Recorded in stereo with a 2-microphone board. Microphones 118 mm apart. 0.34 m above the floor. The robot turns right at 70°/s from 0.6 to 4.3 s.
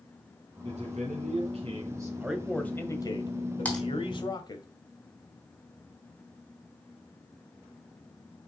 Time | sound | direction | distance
0.6 | a man speaking | 120° right | 2.5 m
2.2 | a man speaking | 15° right | 1.6 m
3.6 | typing on a keyboard | 10° left (ahead or behind) | 3 m